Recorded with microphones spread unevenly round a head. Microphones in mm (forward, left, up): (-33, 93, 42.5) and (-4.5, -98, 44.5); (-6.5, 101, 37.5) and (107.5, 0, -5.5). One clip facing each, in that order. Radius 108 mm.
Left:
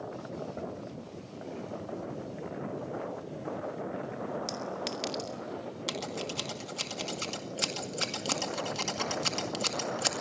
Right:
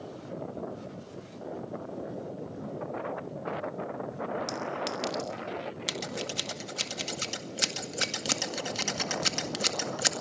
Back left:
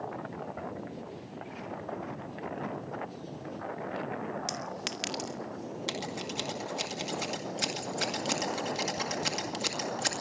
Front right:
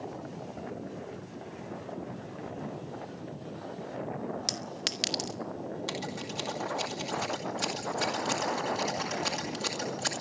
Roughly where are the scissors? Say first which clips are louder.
Left 2 dB, even; behind right.